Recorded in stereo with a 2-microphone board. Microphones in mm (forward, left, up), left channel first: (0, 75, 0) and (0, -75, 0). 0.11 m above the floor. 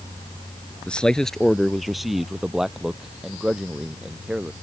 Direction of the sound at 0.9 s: 5° left (ahead or behind).